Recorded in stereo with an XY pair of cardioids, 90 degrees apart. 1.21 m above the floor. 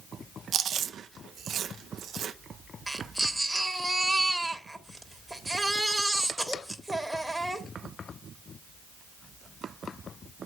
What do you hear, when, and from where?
0.5 s chewing: 70° right, 0.8 m
2.9 s a baby crying: 10° right, 1.9 m